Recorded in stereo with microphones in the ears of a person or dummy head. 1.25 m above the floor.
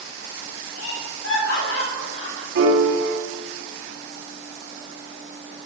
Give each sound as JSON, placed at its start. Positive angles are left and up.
{"t": 0.8, "sound": "laughter", "side_deg": 75, "distance_m": 5.0}
{"t": 2.5, "sound": "a piano", "side_deg": -65, "distance_m": 3.5}